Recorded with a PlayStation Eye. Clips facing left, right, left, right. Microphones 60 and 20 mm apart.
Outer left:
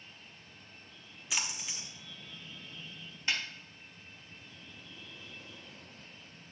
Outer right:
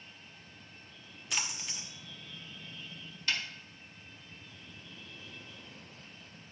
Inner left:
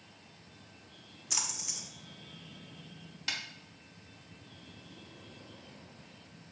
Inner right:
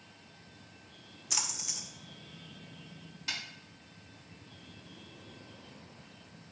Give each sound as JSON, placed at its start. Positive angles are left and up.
{"t": 1.3, "sound": "a splash", "side_deg": 0, "distance_m": 0.9}
{"t": 3.3, "sound": "a snare drum", "side_deg": 25, "distance_m": 1.3}